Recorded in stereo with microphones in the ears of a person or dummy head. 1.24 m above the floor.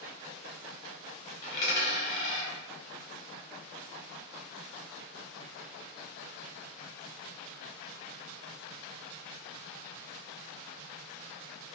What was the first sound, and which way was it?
A dropped coin, 40° left (ahead or behind).